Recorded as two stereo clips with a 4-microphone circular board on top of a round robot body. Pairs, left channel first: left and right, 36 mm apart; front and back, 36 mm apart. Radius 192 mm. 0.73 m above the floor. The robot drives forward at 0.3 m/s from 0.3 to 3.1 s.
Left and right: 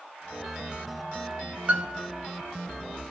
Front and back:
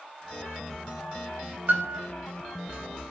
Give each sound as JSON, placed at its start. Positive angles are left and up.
{"t": 1.7, "sound": "a piano", "azimuth_deg": -145, "distance_m": 1.6}